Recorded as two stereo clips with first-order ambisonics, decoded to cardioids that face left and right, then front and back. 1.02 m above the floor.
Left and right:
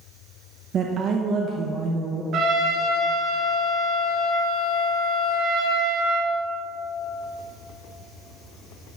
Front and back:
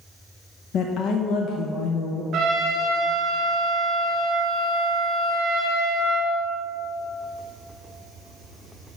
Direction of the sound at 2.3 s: 130° right.